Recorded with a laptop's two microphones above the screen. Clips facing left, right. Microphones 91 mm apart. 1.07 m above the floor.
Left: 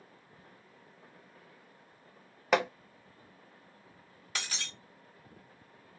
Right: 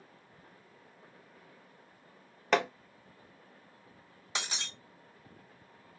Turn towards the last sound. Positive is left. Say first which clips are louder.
# right 2 dB
turn(degrees=-20)  # may be behind; listen again after turning